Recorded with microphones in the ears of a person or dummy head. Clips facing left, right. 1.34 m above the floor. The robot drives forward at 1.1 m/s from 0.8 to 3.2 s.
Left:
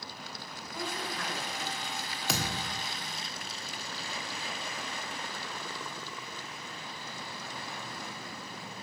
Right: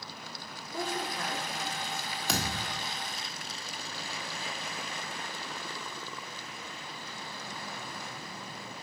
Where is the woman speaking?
40° right (ahead or behind), 1.5 m; by 2.1 s 20° right (ahead or behind), 3 m.